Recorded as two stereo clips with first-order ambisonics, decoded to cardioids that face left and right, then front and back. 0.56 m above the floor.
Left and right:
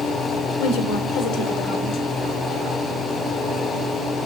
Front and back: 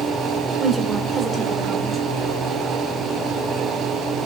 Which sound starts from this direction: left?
A woman speaking, at 0.6 s.